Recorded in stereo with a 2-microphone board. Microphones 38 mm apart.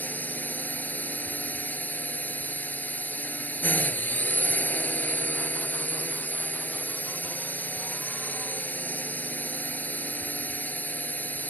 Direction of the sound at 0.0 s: 45° left (ahead or behind).